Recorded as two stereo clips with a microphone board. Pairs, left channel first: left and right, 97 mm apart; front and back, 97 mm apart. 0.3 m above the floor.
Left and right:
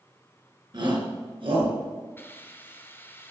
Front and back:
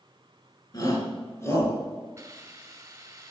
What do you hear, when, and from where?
0.7 s a shout: 50° right, 4.5 m; by 1.8 s 65° right, 4.5 m
2.2 s a hiss: 140° left, 1.7 m